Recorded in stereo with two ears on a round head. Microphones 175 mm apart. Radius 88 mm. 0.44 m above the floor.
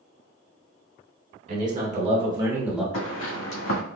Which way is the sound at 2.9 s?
75° left (ahead or behind).